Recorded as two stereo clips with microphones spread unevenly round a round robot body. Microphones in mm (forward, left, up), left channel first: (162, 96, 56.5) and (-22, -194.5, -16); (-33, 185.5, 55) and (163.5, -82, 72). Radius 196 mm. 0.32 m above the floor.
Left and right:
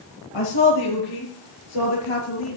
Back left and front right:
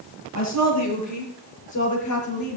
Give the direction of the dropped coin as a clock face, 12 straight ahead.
No dropped coin in this recording.